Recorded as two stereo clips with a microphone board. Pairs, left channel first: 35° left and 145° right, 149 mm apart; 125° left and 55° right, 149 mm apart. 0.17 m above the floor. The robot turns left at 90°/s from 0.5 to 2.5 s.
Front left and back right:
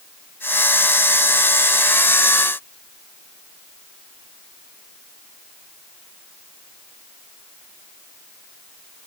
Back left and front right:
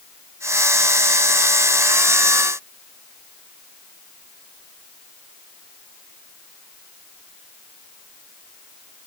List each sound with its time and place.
Only background noise.